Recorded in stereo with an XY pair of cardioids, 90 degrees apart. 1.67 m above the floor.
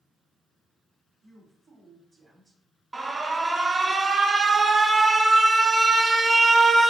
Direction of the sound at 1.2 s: 40° right.